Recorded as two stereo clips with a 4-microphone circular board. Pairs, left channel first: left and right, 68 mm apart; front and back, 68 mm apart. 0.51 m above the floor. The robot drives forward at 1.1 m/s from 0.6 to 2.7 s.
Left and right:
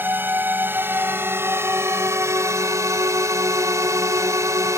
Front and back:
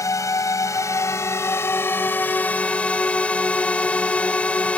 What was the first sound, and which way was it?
A drone, 35° right.